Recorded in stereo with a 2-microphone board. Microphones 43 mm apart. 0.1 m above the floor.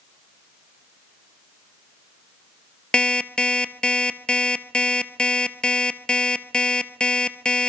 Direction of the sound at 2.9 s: 20° left (ahead or behind).